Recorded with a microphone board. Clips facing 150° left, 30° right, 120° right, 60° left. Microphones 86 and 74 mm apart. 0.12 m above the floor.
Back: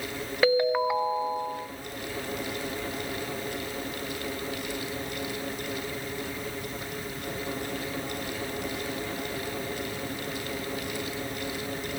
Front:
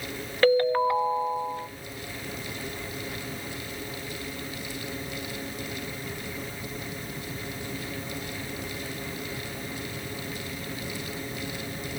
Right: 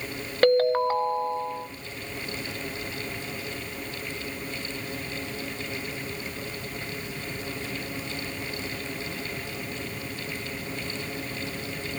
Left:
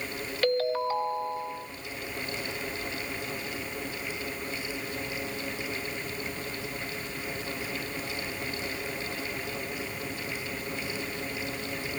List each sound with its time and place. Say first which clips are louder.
0.4 s a ringtone: front 2 dB, right 7 dB; 135° right, 0.9 m